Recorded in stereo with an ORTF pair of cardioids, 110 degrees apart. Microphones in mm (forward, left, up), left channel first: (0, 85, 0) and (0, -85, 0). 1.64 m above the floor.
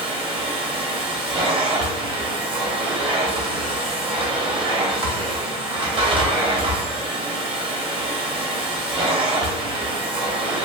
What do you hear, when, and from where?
0.0 s a machine running: 30° right, 0.8 m